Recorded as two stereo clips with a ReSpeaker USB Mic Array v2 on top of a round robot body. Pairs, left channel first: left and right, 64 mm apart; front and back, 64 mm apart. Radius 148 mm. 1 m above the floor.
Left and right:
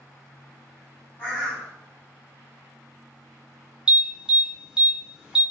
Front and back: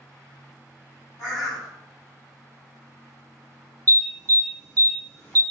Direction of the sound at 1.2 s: 30° left.